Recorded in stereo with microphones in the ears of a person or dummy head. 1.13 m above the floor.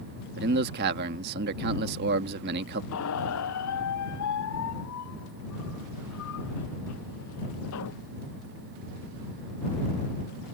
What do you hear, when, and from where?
0.4 s a man speaking: 50° right (ahead or behind)
2.9 s a squeak: 80° left